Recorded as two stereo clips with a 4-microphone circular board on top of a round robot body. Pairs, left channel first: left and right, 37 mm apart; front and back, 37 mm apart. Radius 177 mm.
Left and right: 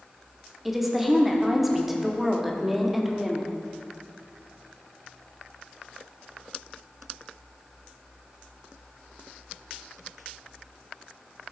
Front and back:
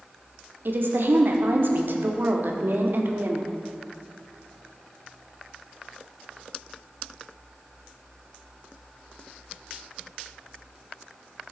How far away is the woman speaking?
About 1.6 m.